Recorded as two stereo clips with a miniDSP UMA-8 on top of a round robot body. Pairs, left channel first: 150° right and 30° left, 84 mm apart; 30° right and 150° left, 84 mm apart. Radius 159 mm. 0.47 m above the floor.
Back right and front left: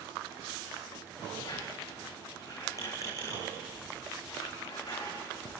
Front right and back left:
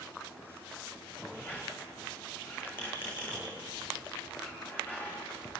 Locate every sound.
1.3 s a squeak: 95° right, 7 m